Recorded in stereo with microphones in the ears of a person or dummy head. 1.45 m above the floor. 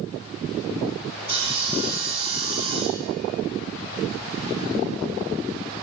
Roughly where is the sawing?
Right.